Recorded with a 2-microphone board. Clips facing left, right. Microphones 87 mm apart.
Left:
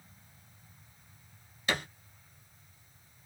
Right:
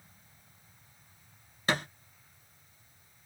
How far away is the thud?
About 1.5 m.